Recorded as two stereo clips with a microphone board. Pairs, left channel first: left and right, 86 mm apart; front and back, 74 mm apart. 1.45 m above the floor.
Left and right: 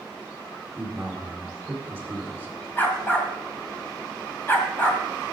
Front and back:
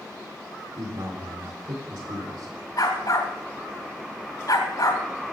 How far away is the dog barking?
About 2.5 m.